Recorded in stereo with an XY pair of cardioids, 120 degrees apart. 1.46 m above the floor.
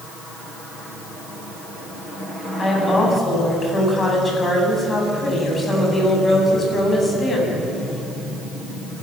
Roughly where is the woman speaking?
Ahead left.